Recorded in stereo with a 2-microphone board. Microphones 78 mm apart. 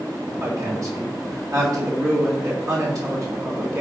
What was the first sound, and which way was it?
A woman speaking, 45° right (ahead or behind).